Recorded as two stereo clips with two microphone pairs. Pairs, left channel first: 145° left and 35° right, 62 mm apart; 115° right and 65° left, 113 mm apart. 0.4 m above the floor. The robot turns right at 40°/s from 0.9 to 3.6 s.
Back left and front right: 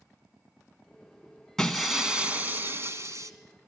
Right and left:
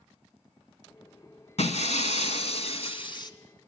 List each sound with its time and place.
1.6 s breaking glass: 135° right, 1.9 m; by 3.3 s 65° right, 1.9 m